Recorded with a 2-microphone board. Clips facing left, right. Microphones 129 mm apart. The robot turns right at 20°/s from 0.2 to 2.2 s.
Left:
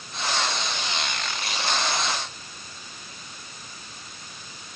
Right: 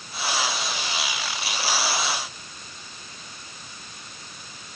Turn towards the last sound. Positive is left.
No sound to turn to.